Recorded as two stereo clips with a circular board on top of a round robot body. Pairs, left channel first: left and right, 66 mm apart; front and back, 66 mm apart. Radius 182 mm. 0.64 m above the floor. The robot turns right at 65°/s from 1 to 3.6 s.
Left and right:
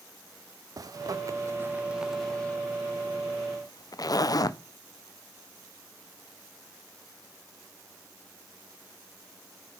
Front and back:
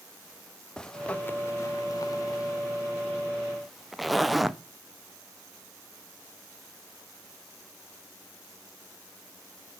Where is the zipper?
75° right, 0.6 m; by 4.6 s 90° left, 0.6 m.